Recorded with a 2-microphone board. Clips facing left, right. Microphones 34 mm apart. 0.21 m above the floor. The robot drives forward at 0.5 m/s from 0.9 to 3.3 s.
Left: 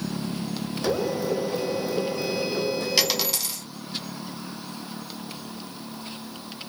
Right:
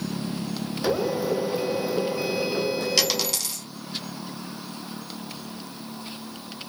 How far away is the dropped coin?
About 0.8 m.